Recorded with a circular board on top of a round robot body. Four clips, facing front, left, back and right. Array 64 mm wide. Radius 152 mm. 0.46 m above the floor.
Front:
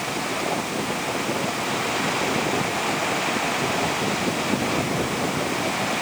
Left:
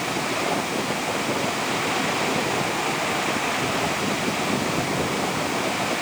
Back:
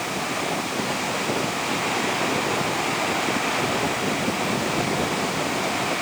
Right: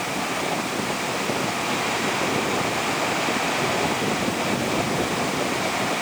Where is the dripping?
No dripping in this recording.